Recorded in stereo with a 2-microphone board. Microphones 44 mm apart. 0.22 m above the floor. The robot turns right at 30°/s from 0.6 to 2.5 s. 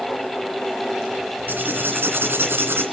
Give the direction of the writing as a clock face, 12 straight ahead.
4 o'clock.